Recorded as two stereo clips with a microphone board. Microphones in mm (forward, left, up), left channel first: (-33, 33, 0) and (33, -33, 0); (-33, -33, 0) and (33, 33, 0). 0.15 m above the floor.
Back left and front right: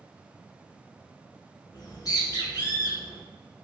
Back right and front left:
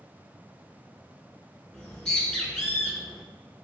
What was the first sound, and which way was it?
A bird, 150° left.